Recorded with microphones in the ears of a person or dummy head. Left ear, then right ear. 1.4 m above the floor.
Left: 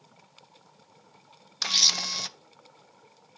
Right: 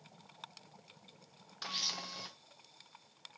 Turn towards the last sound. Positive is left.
turn(degrees=70)  # may be behind; listen again after turning